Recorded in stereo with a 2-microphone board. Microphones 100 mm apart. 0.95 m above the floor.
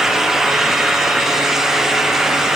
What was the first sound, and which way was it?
Only background noise.